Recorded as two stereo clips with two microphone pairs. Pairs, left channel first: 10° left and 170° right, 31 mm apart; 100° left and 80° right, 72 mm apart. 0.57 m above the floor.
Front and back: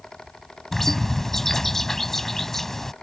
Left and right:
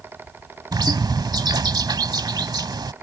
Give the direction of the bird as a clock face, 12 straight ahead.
2 o'clock.